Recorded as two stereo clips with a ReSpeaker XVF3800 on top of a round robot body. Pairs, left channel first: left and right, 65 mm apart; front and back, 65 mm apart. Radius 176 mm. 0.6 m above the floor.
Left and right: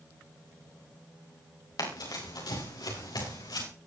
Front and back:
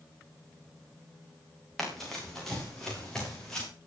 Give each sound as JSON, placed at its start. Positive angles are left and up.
{"t": 1.8, "sound": "running footsteps", "azimuth_deg": 85, "distance_m": 8.5}